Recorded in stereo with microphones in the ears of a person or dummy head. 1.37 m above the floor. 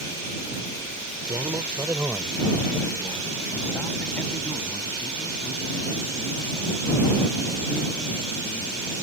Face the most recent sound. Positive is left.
turn(degrees=20)  # may be behind; listen again after turning